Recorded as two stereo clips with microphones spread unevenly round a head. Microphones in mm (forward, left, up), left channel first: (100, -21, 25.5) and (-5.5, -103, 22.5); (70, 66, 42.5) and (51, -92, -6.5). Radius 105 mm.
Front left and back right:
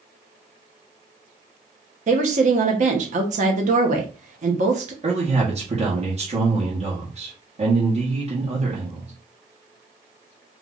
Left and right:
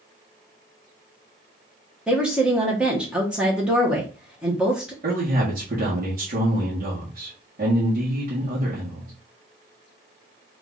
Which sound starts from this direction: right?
A man speaking, at 5.0 s.